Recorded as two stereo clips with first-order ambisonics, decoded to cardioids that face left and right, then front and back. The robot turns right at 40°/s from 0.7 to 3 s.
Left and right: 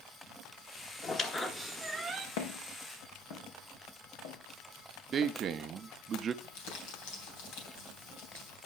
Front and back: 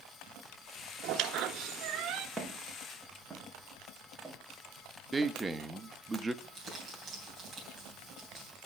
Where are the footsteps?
90° left, 3 m; by 5.3 s 80° left, 2.5 m.